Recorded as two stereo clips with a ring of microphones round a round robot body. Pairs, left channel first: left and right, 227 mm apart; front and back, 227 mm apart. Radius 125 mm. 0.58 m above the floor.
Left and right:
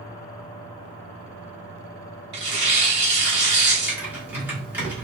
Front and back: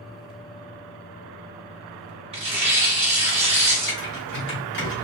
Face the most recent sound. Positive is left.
turn(degrees=-10)